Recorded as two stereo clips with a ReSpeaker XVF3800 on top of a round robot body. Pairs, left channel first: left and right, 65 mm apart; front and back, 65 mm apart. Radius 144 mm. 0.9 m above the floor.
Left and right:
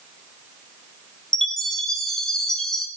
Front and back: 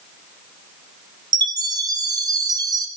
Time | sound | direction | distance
1.3 | a chime | 170° left | 2.5 m